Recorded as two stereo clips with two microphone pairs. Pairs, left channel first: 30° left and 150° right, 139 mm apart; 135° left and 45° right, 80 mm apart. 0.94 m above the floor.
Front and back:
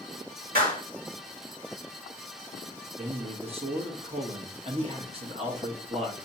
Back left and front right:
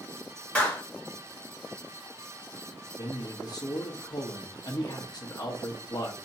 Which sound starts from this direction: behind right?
A clap, at 0.6 s.